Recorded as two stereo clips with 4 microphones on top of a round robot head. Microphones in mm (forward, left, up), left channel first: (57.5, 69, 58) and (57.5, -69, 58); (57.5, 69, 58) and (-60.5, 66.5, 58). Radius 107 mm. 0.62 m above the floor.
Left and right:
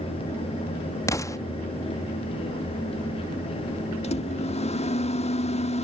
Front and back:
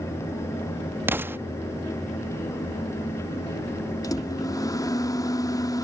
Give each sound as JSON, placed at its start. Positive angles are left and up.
{"t": 1.1, "sound": "an explosion", "azimuth_deg": 130}
{"t": 4.0, "sound": "a microwave", "azimuth_deg": 60}